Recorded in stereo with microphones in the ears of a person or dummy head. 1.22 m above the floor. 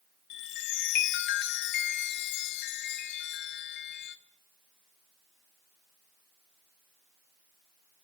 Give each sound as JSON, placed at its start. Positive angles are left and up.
{"t": 0.3, "sound": "a chime", "side_deg": 50, "distance_m": 0.6}